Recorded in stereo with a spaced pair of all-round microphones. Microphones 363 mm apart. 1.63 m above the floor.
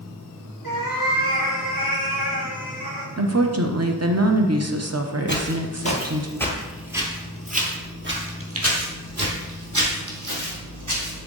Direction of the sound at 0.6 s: 65° right (ahead or behind).